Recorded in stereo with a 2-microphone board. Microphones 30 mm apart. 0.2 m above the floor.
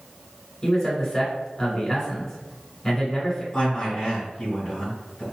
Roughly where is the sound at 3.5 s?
Left.